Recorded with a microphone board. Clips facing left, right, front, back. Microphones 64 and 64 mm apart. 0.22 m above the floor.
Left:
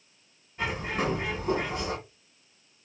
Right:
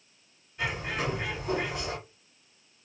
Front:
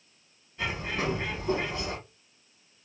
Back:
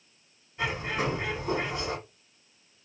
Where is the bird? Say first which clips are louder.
Left 2 dB, back 2 dB; 115° left, 2 m.